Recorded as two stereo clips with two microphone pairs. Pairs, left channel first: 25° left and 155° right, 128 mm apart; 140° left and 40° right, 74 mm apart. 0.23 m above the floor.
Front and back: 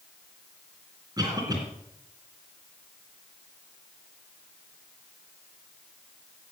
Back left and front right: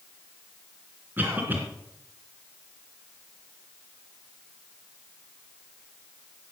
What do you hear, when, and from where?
1.2 s a cough: 100° right, 2.5 m